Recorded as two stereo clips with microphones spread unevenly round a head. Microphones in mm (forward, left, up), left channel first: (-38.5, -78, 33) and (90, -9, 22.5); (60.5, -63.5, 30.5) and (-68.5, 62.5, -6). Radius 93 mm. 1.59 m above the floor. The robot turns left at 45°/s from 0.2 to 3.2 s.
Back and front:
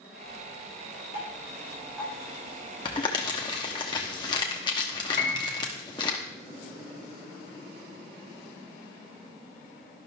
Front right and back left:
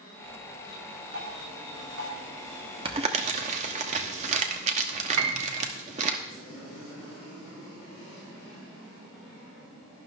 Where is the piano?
160° left, 2 m.